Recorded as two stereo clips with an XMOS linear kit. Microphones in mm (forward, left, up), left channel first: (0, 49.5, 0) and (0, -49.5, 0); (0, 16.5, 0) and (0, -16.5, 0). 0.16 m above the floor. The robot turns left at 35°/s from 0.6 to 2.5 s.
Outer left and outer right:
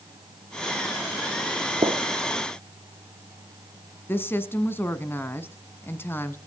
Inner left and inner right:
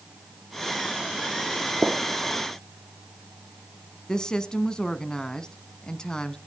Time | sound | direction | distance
1.8 | a gunshot | 75° right (ahead or behind) | 1.3 m
4.1 | a woman speaking | 25° left (ahead or behind) | 1.1 m